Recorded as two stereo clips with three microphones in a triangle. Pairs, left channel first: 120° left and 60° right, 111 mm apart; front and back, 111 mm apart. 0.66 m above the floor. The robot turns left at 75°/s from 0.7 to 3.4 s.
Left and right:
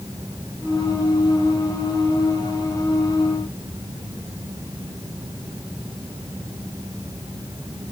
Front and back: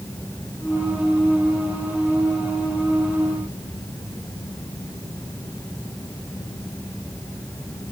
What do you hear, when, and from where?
Only background noise.